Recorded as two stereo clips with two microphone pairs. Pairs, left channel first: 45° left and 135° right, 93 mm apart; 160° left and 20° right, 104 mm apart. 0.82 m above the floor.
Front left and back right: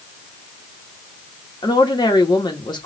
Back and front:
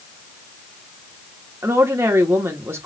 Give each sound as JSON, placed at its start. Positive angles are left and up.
{"t": 1.6, "sound": "a woman speaking", "azimuth_deg": 40, "distance_m": 1.4}